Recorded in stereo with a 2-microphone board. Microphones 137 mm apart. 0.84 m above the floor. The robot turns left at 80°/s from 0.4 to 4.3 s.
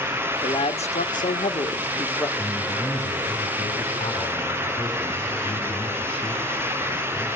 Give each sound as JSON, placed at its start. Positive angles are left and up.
{"t": 0.4, "sound": "a man speaking", "azimuth_deg": 155, "distance_m": 1.0}
{"t": 2.4, "sound": "a man speaking", "azimuth_deg": 165, "distance_m": 9.0}